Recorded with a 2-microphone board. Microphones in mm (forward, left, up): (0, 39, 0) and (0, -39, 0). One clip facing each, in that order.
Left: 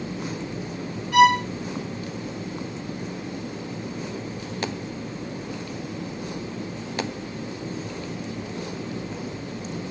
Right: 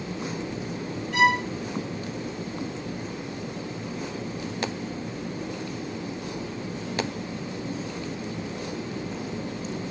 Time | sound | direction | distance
1.1 | a violin | 75° left (ahead or behind) | 3.5 m